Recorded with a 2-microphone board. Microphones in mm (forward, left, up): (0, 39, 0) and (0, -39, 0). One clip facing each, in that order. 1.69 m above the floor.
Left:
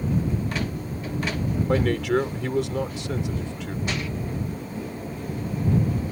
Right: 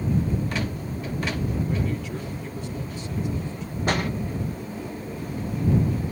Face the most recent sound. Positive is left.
turn(degrees=-45)  # may be behind; listen again after turning